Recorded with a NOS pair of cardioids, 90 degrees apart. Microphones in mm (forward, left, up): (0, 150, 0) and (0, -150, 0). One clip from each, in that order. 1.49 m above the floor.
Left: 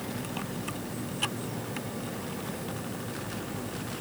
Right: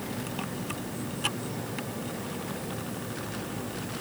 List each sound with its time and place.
Only background noise.